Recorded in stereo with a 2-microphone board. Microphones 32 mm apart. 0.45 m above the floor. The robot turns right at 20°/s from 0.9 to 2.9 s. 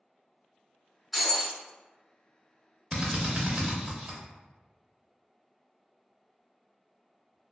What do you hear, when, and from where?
1.1 s breaking glass: 5° right (ahead or behind), 1.8 m; by 1.6 s centre (ahead or behind), 1.8 m
2.9 s a drill: 30° right (ahead or behind), 0.7 m